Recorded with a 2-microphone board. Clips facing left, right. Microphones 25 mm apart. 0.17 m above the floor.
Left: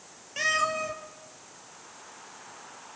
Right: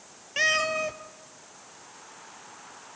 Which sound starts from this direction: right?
A cat meowing, at 0.4 s.